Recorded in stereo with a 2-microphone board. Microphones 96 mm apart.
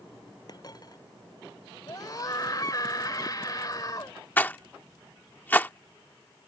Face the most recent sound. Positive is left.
turn(degrees=20)  # may be behind; listen again after turning